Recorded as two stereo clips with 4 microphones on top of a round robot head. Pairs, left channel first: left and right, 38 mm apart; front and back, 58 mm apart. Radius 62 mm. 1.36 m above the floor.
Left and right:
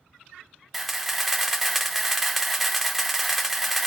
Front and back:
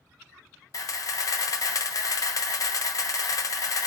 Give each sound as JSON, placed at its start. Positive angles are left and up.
{"t": 0.7, "sound": "a camera shutter", "azimuth_deg": -5, "distance_m": 0.7}